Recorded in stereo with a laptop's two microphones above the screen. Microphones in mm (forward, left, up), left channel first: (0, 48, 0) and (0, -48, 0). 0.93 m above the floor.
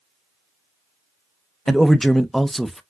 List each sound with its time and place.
1.7 s a man speaking: centre (ahead or behind), 0.5 m